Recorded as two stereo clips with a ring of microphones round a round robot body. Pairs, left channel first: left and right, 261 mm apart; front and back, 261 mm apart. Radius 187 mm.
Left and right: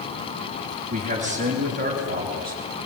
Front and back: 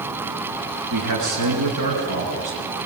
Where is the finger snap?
I don't hear a finger snap.